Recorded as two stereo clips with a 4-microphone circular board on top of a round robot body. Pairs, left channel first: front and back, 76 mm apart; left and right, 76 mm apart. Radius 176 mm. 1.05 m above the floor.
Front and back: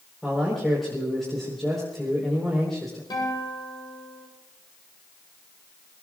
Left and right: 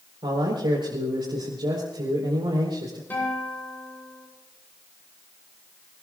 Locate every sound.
0.2 s a man speaking: 85° right, 5 m
3.1 s a guitar: 25° left, 9 m